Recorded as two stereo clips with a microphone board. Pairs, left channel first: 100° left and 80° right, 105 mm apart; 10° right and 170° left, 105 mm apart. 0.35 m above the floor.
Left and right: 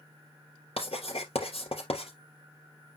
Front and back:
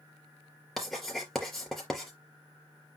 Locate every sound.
0.8 s writing: 80° left, 3.5 m